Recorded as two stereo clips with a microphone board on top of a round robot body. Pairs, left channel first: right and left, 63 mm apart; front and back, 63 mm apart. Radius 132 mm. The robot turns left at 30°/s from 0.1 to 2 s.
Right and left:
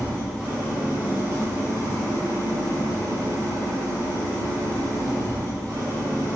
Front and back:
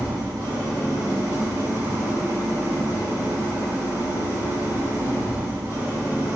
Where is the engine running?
175° right, 1.0 m; by 6.4 s 125° left, 1.0 m.